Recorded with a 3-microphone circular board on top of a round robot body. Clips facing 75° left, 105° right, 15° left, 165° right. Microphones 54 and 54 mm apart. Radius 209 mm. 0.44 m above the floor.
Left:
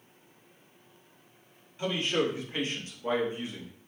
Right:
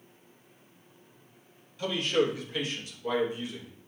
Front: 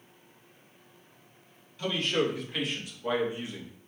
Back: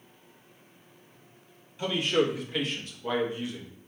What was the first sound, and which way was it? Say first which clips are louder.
A man speaking: right 2 dB, back 2 dB; 130° left.